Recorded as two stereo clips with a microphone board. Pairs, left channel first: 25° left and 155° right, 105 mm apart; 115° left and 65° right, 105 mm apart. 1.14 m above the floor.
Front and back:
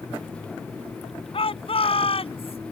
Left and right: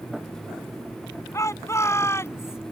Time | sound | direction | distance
1.3 | a shout | 50° left | ?